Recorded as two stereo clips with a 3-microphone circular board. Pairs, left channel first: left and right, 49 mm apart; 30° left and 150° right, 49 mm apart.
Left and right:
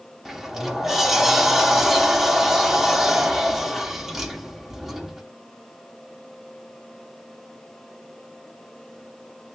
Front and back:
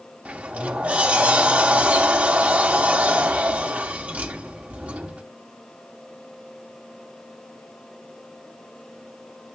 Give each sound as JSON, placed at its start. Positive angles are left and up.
{"t": 0.2, "sound": "a sliding door", "azimuth_deg": -165, "distance_m": 0.9}